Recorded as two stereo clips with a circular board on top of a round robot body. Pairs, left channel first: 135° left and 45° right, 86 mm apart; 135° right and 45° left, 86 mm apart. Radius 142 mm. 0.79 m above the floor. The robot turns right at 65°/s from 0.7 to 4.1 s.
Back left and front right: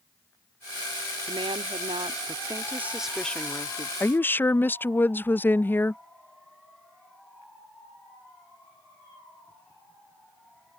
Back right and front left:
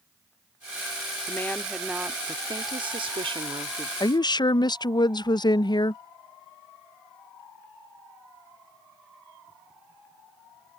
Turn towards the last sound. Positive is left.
turn(degrees=-160)